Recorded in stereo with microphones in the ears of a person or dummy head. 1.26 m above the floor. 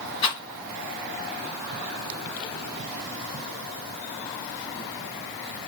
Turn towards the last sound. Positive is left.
turn(degrees=25)  # may be behind; listen again after turning